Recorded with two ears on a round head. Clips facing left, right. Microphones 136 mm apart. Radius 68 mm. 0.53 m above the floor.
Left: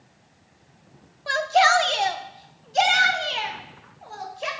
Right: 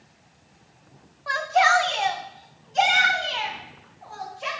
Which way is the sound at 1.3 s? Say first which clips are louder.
Left 2 dB; 35° left (ahead or behind).